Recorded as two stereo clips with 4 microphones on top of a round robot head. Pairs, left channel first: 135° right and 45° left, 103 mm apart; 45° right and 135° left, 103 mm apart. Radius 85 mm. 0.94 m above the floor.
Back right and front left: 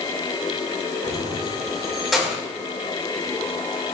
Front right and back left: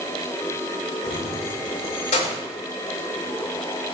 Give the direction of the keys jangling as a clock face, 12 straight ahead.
1 o'clock.